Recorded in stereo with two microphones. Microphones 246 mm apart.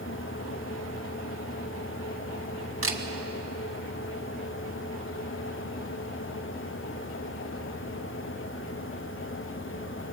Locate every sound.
2.8 s a camera shutter: 60° right (ahead or behind), 1.5 m